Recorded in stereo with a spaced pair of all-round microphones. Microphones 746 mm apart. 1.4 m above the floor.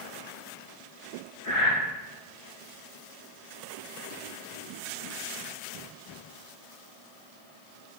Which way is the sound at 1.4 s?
25° left (ahead or behind).